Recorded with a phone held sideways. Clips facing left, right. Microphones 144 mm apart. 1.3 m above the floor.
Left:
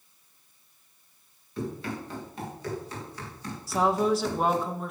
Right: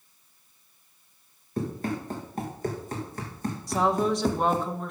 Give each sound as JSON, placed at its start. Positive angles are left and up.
{"t": 1.6, "sound": "running footsteps", "side_deg": -45, "distance_m": 5.5}
{"t": 3.7, "sound": "a woman speaking", "side_deg": 5, "distance_m": 1.5}